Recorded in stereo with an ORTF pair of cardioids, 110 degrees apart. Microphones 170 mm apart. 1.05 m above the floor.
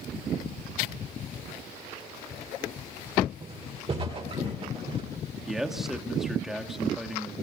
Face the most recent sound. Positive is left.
turn(degrees=0)